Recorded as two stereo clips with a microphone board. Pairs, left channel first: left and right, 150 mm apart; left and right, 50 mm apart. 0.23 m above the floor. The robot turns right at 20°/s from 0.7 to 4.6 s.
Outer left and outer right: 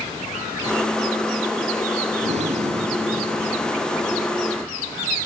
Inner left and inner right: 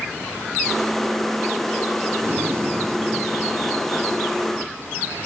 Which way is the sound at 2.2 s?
75° right.